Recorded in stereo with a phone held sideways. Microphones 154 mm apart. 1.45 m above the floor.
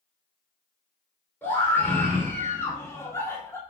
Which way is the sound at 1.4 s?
15° left (ahead or behind).